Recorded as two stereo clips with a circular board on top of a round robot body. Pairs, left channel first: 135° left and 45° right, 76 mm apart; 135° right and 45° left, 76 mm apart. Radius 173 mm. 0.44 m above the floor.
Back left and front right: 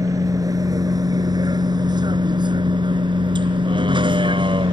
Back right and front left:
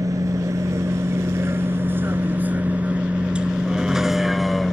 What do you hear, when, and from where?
0.0 s a vehicle: straight ahead; by 4.7 s 45° right